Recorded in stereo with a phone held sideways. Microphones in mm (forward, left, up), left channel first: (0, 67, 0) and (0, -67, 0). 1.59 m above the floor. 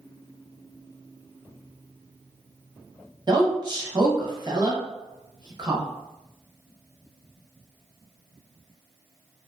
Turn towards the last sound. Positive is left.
turn(degrees=-35)  # may be behind; listen again after turning